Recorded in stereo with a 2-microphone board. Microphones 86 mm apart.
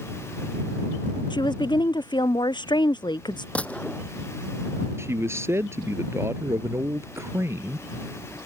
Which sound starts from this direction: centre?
A gunshot, at 3.5 s.